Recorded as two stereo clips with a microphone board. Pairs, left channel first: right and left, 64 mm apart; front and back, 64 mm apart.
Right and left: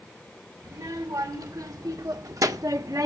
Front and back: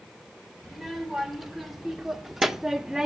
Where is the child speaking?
90° left, 2.5 m; by 3.1 s 100° left, 1.0 m.